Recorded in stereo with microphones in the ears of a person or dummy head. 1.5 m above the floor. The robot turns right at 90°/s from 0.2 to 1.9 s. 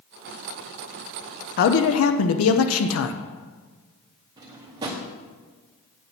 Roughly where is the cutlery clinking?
I don't hear cutlery clinking.